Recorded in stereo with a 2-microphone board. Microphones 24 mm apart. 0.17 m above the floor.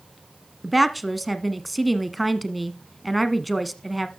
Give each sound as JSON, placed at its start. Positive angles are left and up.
{"t": 0.6, "sound": "a woman speaking", "side_deg": 0, "distance_m": 1.3}